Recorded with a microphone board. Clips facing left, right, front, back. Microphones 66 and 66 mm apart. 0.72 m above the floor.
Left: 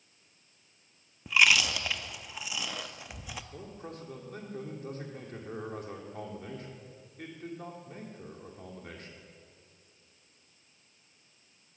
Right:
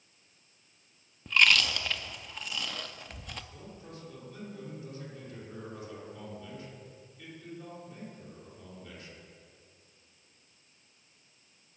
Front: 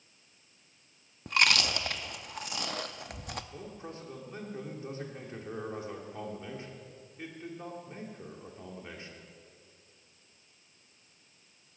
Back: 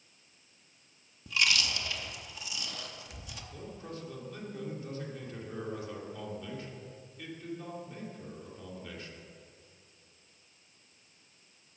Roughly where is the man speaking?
Ahead left.